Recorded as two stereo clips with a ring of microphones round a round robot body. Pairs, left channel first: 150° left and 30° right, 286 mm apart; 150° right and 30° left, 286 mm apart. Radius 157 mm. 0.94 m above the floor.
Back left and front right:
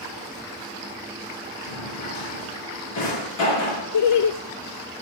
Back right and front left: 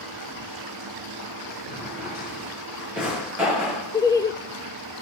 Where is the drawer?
115° left, 6 m.